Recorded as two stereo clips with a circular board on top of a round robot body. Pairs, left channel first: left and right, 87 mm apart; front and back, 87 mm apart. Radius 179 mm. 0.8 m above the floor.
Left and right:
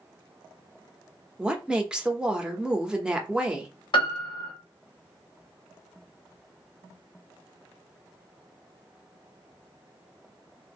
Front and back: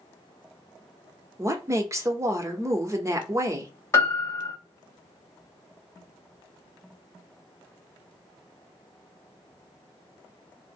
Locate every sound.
1.4 s a woman speaking: 165° right, 1.0 m
3.9 s a piano: 60° left, 1.2 m